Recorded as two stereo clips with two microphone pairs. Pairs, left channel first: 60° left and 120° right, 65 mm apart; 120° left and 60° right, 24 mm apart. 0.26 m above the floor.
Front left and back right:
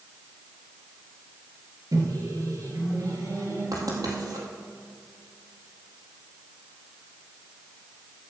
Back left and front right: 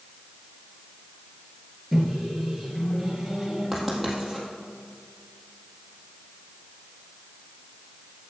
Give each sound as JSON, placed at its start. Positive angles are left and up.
{"t": 1.9, "sound": "a microwave", "azimuth_deg": -150, "distance_m": 3.0}
{"t": 3.7, "sound": "writing", "azimuth_deg": -150, "distance_m": 3.5}